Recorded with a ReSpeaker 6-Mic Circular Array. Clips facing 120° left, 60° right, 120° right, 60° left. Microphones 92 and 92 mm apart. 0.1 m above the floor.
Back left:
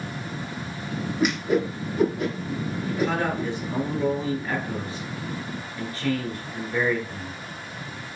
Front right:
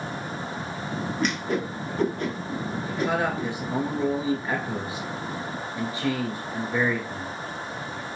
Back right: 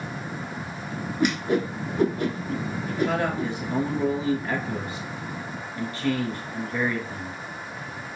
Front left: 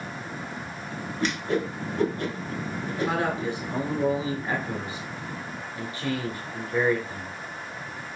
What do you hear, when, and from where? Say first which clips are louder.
1.2 s a whoosh: back left 5 dB, back right 3 dB; 175° right, 0.9 m
2.9 s a man speaking: back left 1 dB, back right 2 dB; straight ahead, 1.3 m